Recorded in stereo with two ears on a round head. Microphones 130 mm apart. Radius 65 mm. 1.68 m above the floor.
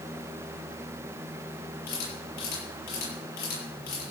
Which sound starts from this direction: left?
A camera shutter, at 1.9 s.